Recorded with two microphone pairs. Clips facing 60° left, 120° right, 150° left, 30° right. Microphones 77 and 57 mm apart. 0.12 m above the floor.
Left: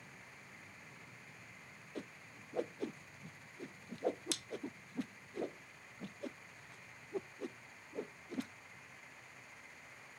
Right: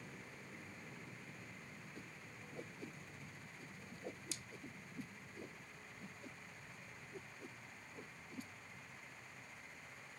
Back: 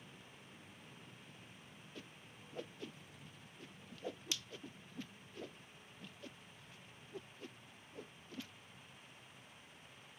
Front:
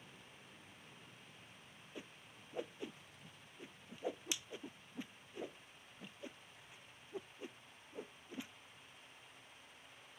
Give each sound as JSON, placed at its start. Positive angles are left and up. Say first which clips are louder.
{"t": 0.0, "sound": "an aircraft", "louder": "right 3 dB, back 1 dB", "azimuth_deg": -120}
{"t": 1.9, "sound": "a whoosh", "louder": "left 5 dB, front 3 dB", "azimuth_deg": 45}